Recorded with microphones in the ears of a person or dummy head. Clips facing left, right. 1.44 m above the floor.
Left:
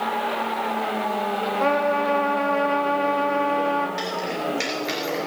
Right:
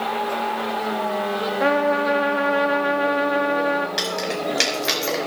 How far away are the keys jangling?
About 5 m.